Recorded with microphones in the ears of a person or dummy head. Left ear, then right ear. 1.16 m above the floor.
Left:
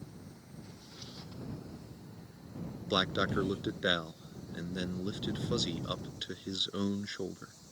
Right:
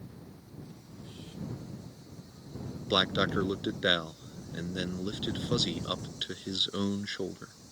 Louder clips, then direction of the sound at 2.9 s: Right 3 dB; 10° right (ahead or behind).